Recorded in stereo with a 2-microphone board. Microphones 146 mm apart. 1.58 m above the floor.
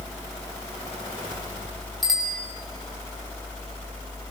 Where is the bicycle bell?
Centre (ahead or behind), 5 m.